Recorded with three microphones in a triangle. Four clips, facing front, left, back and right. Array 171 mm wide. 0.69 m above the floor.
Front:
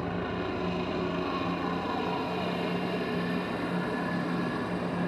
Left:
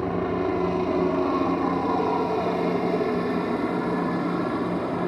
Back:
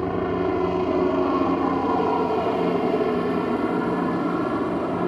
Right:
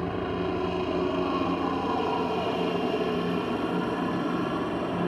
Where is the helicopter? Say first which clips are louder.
Left 4 dB, back 9 dB; 155° left; by 5.1 s 170° left.